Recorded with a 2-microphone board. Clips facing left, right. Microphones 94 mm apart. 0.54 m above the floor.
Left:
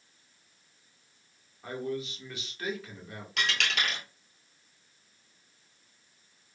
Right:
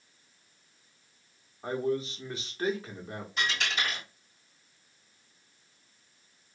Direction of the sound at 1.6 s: 30° right (ahead or behind).